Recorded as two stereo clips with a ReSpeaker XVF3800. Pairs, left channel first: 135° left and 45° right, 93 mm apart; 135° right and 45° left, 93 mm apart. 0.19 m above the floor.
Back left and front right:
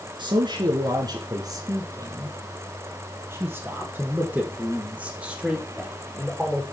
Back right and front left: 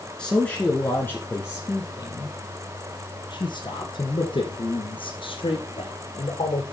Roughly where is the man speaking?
Ahead right.